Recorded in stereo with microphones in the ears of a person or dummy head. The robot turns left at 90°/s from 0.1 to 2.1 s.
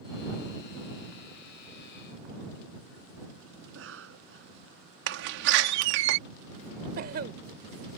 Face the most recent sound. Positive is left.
turn(degrees=-50)  # may be behind; listen again after turning